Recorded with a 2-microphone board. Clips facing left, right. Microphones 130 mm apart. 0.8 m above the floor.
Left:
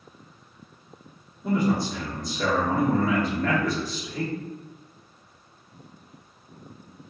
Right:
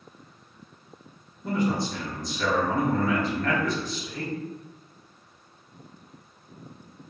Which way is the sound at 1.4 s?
5° left (ahead or behind).